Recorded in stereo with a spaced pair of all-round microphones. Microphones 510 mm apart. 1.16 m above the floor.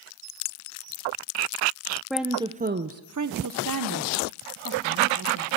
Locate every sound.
2.1 s a woman speaking: centre (ahead or behind), 0.6 m; by 5.5 s 40° right (ahead or behind), 1.6 m